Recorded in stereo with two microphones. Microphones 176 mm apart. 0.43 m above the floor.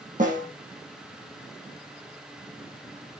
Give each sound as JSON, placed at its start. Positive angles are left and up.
{"t": 0.2, "sound": "a snare drum", "side_deg": -50, "distance_m": 5.0}